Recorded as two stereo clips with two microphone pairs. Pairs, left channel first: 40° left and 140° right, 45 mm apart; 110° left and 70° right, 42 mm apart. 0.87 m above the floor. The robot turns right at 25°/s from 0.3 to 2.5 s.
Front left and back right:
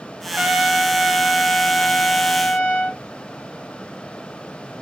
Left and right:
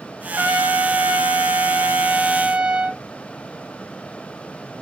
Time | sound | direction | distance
0.2 | a trumpet | 75° right | 1.2 m